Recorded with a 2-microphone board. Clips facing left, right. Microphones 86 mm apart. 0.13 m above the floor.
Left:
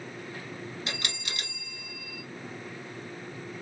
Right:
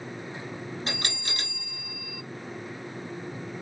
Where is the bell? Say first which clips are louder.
Right 3 dB; 35° right (ahead or behind), 1.1 m.